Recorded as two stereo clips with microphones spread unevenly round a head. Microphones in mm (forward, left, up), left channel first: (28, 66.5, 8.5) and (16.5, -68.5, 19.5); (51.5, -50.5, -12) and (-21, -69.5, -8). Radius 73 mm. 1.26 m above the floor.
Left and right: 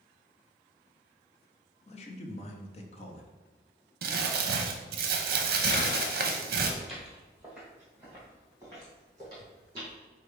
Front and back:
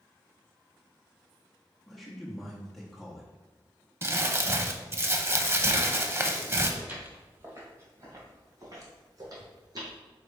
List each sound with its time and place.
1.9 s a man speaking: 100° left, 0.7 m
4.0 s crumpling: 110° right, 0.6 m
6.8 s footsteps: straight behind, 1.4 m; by 9.9 s 155° right, 2.5 m